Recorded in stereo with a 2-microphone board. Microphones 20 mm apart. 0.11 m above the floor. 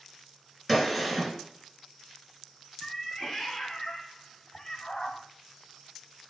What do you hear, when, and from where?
0.7 s a gunshot: 5° left (ahead or behind), 1.8 m
2.8 s a cat meowing: 30° left (ahead or behind), 0.7 m